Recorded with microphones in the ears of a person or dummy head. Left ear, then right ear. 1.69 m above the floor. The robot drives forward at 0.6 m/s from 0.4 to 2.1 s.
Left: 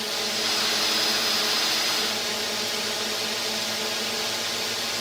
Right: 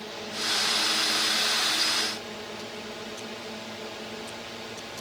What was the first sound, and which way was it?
A drone, 70° left (ahead or behind).